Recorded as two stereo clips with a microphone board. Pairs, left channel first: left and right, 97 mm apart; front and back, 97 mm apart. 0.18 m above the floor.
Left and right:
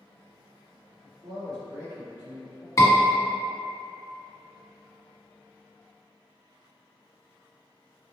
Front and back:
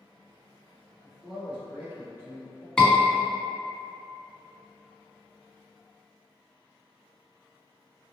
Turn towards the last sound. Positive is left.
turn(degrees=75)